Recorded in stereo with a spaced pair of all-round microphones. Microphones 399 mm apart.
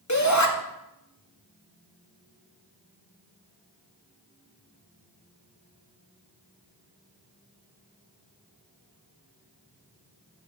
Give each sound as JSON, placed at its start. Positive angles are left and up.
{"t": 0.1, "sound": "a shout", "side_deg": 45, "distance_m": 2.0}